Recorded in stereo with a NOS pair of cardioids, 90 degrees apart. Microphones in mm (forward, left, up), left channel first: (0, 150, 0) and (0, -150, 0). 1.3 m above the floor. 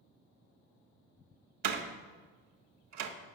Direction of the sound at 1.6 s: 65° right.